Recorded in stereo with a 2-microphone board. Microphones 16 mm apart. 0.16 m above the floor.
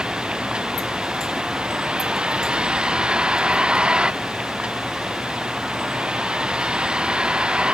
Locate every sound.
0.0 s a vehicle: 80° right; by 7.8 s 90° right